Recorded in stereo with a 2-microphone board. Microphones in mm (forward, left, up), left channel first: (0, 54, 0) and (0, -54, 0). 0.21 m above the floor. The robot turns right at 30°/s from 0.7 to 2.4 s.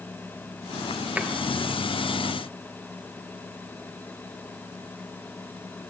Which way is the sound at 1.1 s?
10° right (ahead or behind).